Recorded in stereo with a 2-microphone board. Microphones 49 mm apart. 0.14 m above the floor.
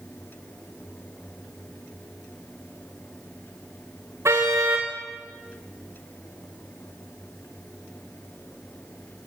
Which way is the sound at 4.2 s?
75° right (ahead or behind).